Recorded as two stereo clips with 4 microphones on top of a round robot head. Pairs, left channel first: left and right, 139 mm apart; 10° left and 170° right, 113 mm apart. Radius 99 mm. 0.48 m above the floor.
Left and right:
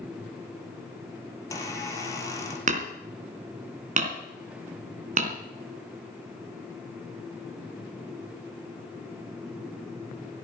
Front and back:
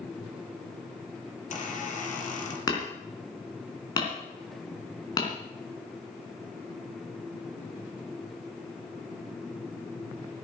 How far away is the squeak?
About 5 m.